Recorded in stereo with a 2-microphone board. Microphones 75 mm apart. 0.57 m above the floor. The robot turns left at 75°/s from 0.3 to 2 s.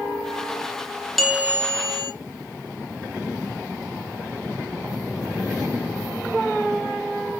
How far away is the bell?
About 0.5 m.